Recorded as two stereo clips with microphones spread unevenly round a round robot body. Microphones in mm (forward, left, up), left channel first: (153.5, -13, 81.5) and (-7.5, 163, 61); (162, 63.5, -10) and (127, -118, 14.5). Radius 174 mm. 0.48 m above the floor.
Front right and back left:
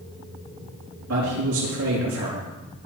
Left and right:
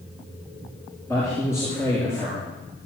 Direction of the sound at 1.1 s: 160° left.